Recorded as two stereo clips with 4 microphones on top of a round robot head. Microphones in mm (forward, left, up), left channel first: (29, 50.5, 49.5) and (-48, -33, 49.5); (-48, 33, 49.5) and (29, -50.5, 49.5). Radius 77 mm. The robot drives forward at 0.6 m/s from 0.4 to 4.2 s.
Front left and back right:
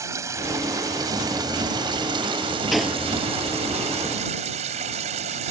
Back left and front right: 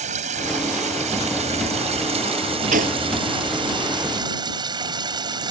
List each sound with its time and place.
0.0 s running water: 65° right; by 5.5 s 100° right
2.7 s a gunshot: 45° right